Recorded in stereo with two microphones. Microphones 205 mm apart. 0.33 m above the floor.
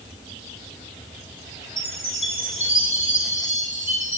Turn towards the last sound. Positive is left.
turn(degrees=70)  # may be behind; listen again after turning